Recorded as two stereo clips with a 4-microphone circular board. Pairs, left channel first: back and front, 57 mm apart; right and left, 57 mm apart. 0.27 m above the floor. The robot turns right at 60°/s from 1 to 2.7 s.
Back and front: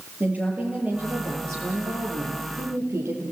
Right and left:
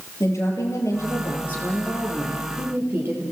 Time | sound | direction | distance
0.2 | a woman speaking | 60° right | 6 m